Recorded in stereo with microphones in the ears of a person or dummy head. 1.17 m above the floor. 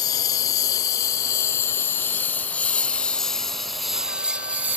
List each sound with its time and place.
0.0 s a lawn mower: 20° left (ahead or behind); by 4.8 s 15° right (ahead or behind)